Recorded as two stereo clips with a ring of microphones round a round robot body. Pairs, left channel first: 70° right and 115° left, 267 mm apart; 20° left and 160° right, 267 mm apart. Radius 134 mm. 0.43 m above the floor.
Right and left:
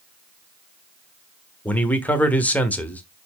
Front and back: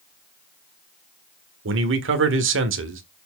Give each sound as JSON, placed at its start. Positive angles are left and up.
{"t": 1.6, "sound": "a man speaking", "azimuth_deg": -150, "distance_m": 1.3}